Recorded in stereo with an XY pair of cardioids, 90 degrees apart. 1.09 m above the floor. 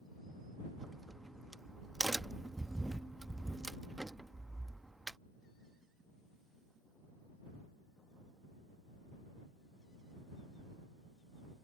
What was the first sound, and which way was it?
A crack, 10° right.